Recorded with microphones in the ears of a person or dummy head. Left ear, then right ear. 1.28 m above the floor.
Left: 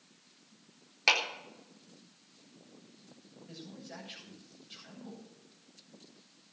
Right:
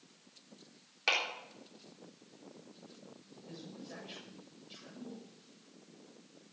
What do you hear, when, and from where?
1.1 s a clap: 25° left (ahead or behind), 3.5 m
3.5 s a man speaking: 10° left (ahead or behind), 7 m